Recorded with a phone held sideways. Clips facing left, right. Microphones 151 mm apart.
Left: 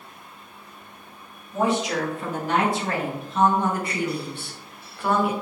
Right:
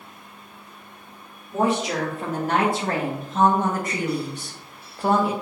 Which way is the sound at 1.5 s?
50° right (ahead or behind).